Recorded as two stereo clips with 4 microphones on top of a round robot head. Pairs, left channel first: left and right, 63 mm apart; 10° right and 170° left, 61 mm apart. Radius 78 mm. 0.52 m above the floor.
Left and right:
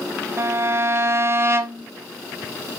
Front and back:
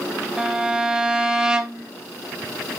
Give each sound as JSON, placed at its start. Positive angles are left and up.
{"t": 0.4, "sound": "a violin", "azimuth_deg": -115, "distance_m": 1.5}